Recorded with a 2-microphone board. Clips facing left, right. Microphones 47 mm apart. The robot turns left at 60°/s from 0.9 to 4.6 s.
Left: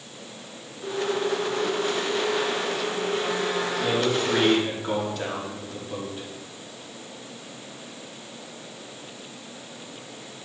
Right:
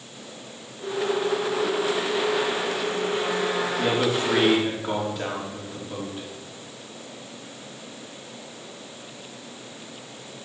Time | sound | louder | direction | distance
3.8 | a man speaking | right 1 dB | 120° right | 3.5 m